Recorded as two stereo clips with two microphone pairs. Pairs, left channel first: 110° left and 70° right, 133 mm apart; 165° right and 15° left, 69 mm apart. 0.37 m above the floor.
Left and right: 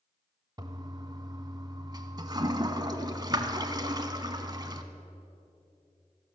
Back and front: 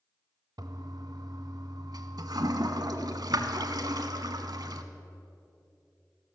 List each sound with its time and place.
0.6 s a toilet flushing: 10° right, 0.9 m